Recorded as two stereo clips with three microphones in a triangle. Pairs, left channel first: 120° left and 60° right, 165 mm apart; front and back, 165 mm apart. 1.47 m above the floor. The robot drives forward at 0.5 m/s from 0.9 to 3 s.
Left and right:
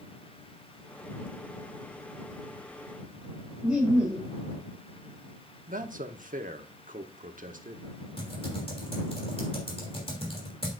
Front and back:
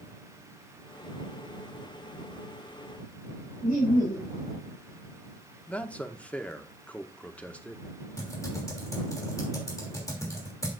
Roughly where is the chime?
No chime in this recording.